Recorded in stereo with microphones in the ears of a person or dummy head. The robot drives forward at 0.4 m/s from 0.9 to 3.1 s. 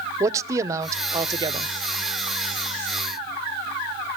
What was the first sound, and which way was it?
A man speaking, 20° right (ahead or behind).